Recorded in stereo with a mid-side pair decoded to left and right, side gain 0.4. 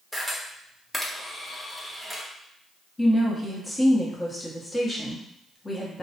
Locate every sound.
0.1 s a camera shutter: 10° left, 0.9 m
3.0 s a woman speaking: 25° left, 1.1 m